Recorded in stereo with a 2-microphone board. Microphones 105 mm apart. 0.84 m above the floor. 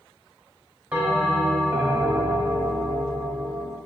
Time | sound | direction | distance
0.9 | a bell | 15° right (ahead or behind) | 1.1 m